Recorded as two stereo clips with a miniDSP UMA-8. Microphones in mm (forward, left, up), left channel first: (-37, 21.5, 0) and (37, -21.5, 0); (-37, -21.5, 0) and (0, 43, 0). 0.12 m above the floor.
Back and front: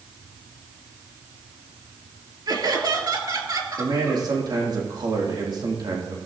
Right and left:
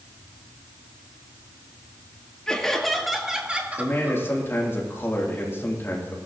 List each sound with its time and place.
2.5 s laughter: 45° right, 2.5 m; by 4.2 s 10° left, 2.5 m
3.8 s a man speaking: 65° right, 4 m